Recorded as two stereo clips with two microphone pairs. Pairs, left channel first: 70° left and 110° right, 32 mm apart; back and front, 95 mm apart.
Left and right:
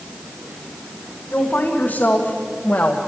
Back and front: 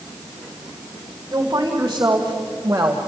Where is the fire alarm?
No fire alarm in this recording.